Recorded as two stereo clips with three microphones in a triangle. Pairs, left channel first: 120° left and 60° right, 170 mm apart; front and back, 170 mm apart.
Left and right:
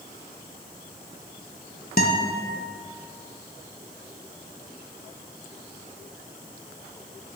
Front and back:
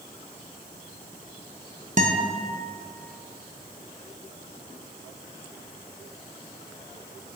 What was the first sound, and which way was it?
A guitar, 145° left.